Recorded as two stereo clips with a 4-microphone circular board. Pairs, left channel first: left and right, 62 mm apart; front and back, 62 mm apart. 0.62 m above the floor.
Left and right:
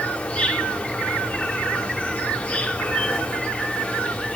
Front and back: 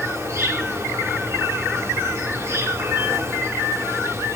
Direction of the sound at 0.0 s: 155° left.